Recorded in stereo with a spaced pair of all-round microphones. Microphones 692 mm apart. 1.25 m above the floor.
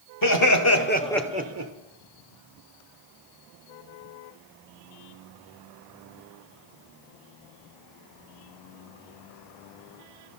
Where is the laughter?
30° left (ahead or behind), 1.3 m; by 1.7 s 35° right (ahead or behind), 0.6 m.